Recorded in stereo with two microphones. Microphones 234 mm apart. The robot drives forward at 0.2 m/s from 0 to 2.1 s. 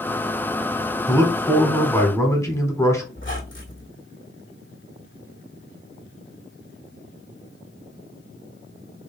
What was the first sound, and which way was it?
A man speaking, 10° left (ahead or behind).